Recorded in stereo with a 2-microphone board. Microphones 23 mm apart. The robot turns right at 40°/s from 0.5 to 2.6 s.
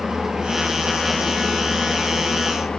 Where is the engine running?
30° right, 5 m; by 2.8 s 55° left, 5 m.